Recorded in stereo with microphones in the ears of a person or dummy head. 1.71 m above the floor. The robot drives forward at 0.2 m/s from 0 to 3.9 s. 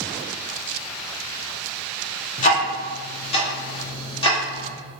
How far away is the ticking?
About 0.6 m.